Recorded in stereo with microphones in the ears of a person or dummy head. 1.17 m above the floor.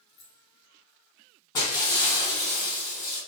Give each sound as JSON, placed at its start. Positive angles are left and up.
{"t": 0.1, "sound": "keys jangling", "side_deg": 60, "distance_m": 1.2}
{"t": 1.5, "sound": "breaking glass", "side_deg": 20, "distance_m": 1.1}